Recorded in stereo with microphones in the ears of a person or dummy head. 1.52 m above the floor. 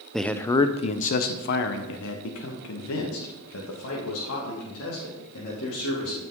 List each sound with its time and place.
0.1 s a man speaking: centre (ahead or behind), 0.6 m; by 6.2 s 85° left, 3 m